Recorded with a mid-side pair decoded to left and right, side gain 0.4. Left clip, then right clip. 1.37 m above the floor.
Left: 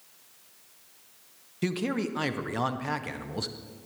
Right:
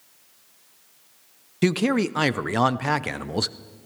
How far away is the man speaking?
About 0.5 m.